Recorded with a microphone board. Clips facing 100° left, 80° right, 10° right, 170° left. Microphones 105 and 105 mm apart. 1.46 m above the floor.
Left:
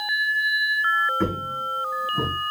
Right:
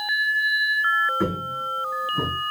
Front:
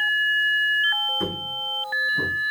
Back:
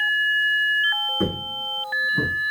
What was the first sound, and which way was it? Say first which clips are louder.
Footsteps: even, back 3 dB; 160° right.